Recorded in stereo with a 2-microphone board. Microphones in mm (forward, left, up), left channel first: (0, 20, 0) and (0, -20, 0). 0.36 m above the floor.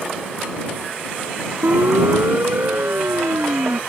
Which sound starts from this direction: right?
A siren, at 1.6 s.